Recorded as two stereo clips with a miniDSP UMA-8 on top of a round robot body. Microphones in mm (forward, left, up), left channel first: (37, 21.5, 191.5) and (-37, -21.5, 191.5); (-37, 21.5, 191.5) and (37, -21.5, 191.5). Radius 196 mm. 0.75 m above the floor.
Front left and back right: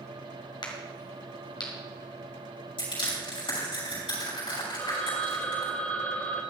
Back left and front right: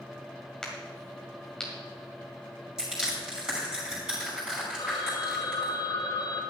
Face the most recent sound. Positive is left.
turn(degrees=100)